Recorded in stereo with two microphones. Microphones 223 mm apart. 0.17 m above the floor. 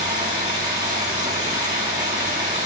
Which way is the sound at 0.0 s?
30° right (ahead or behind).